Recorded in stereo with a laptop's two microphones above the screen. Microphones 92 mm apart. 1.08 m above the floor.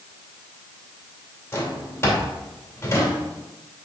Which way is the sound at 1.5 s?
30° left (ahead or behind).